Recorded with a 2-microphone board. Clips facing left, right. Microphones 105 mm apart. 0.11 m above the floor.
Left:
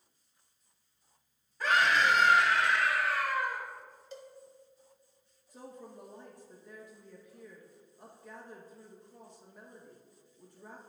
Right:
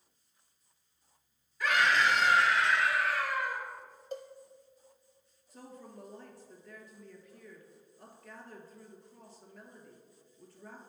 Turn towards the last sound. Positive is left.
turn(degrees=15)  # may be behind; listen again after turning